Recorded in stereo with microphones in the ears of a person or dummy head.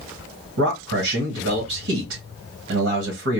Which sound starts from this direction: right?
A man speaking, at 0.6 s.